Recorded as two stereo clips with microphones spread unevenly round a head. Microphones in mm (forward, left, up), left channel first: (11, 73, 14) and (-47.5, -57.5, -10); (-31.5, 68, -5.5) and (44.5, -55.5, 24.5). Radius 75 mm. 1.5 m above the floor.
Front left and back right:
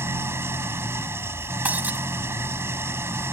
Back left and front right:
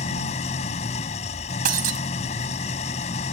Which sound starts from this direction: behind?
An engine running, at 0.0 s.